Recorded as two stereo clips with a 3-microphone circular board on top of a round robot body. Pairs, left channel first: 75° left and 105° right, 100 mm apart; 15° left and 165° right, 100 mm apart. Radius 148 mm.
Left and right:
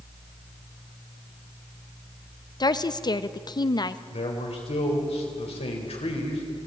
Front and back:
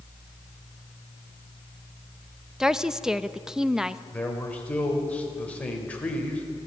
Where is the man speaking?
90° left, 4.5 m.